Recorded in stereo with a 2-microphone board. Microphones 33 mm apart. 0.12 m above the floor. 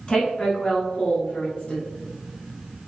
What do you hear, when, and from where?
0.1 s a woman speaking: 25° left (ahead or behind), 1.2 m; by 1.9 s 40° left (ahead or behind), 2.0 m